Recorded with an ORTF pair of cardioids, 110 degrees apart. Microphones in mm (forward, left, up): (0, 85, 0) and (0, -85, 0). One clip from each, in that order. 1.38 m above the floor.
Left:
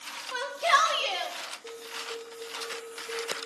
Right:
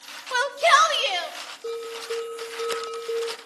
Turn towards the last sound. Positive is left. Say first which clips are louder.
# right 7 dB
turn(degrees=-65)